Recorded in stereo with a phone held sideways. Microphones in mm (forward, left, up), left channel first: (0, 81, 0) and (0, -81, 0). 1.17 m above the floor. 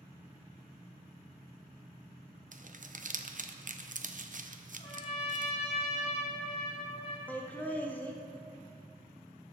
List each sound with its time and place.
2.5 s crumpling: 55° right (ahead or behind), 0.6 m
4.8 s a trumpet: 40° left (ahead or behind), 2 m
7.3 s laughter: 10° left (ahead or behind), 1.4 m